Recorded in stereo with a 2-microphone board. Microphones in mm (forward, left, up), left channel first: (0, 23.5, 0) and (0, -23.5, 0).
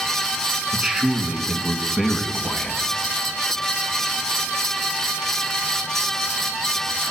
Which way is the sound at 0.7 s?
25° right (ahead or behind).